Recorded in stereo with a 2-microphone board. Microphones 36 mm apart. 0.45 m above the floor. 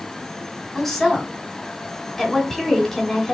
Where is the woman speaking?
5° left (ahead or behind), 2.0 m.